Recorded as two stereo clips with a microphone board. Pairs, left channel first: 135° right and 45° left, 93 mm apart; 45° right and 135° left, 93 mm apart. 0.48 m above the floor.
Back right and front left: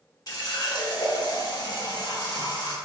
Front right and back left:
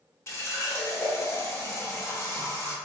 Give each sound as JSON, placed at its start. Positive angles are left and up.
{"t": 0.3, "sound": "a running tap", "azimuth_deg": -100, "distance_m": 0.9}